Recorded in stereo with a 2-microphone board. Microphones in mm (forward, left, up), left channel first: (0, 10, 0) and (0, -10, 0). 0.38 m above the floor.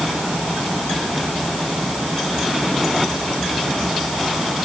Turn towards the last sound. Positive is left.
No sound to turn to.